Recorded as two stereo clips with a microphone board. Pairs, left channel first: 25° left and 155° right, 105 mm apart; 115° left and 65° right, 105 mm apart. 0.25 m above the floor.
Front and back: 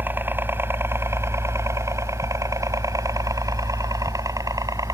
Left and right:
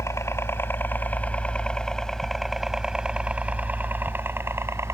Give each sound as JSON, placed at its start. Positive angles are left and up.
{"t": 0.0, "sound": "a helicopter", "azimuth_deg": 150}